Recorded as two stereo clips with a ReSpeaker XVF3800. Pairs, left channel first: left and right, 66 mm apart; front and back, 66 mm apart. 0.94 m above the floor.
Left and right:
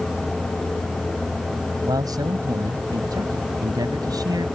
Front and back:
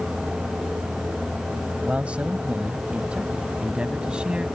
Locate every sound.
1.9 s a man speaking: 110° right; by 4.5 s 105° right